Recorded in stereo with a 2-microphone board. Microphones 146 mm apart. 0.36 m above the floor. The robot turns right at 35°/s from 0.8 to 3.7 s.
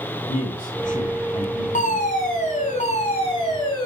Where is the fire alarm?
75° left, 4 m; by 3.9 s 145° left, 4 m.